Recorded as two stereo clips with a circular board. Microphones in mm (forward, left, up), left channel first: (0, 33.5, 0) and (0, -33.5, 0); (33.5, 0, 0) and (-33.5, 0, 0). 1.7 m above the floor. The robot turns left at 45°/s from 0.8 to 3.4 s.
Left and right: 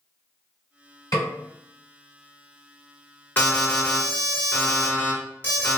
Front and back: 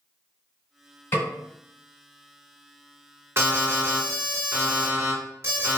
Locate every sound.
1.1 s a snare drum: 60° left, 1.5 m; by 1.3 s 50° left, 1.5 m
3.4 s an alarm: 145° left, 1.2 m